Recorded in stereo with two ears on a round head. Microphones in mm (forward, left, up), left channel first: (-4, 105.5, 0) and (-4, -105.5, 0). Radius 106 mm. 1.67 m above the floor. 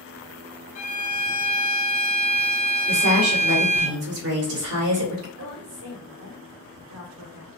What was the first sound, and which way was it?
A violin, 30° left (ahead or behind).